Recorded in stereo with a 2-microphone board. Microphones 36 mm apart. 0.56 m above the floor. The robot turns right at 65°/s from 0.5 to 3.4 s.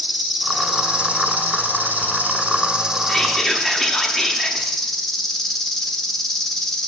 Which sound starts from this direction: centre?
Whispering, at 3.1 s.